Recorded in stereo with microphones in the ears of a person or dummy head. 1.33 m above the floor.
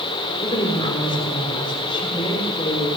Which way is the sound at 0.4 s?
20° left (ahead or behind).